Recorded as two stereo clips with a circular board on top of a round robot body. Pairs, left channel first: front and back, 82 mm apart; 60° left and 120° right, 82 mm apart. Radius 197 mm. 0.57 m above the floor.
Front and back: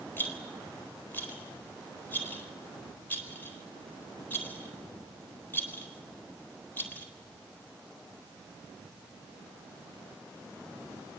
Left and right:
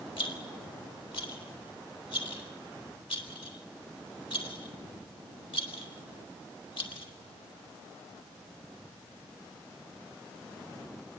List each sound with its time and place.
0.2 s a rattle: 65° left, 4 m